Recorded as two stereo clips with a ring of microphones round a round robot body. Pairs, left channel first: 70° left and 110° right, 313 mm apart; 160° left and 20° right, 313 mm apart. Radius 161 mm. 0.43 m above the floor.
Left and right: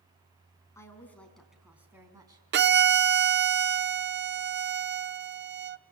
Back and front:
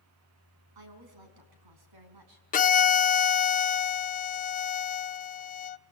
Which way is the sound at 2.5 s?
150° right.